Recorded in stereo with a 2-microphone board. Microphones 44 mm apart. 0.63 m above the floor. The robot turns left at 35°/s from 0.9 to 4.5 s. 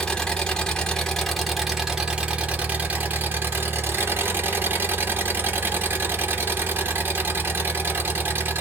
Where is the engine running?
20° left, 0.8 m; by 8.6 s 110° right, 0.8 m.